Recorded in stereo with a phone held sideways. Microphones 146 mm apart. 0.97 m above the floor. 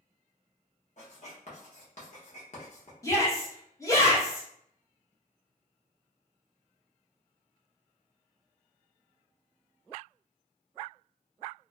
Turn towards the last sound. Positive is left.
turn(degrees=20)  # may be behind; listen again after turning